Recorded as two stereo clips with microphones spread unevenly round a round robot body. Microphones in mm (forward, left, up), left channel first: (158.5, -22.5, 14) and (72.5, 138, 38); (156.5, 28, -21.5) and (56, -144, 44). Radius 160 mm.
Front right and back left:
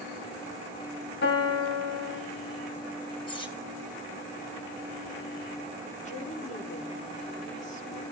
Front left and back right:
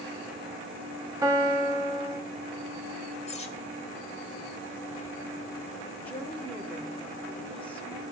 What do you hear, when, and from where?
1.2 s a piano: 45° right, 2.5 m
3.3 s cutlery clinking: straight ahead, 2.5 m
6.0 s a woman speaking: 15° right, 3 m